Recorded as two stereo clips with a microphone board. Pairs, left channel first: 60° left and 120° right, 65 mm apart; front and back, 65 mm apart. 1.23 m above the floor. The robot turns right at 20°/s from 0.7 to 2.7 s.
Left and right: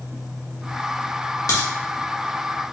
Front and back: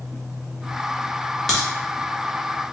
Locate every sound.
1.5 s a crack: 85° left, 1.8 m; by 1.7 s 90° left, 1.8 m